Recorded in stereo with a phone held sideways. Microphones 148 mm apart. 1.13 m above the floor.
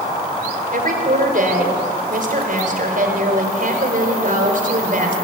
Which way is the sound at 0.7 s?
60° right (ahead or behind).